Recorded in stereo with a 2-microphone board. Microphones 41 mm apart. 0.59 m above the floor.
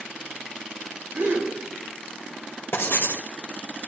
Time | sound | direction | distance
1.1 | a gasp | 70° right (ahead or behind) | 8.5 m
2.7 | writing | 75° left (ahead or behind) | 1.5 m